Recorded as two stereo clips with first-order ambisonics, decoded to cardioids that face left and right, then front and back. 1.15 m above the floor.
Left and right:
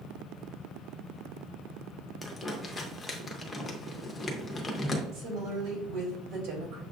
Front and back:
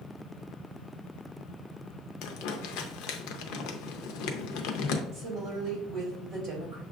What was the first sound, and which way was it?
Crumpling, 15° left.